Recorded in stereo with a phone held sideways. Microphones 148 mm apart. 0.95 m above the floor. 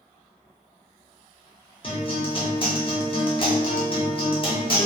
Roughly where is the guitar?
Left.